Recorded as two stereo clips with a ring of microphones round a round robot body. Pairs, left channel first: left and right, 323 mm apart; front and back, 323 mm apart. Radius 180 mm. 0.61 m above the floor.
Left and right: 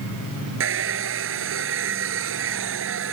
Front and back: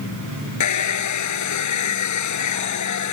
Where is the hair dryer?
35° right.